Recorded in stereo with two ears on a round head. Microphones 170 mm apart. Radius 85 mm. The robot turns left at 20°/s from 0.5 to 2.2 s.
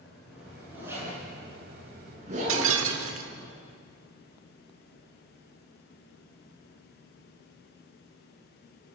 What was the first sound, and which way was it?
A zipper, 5° right (ahead or behind).